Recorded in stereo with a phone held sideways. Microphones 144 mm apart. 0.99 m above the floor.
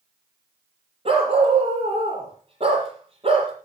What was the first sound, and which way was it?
A dog barking, 45° right (ahead or behind).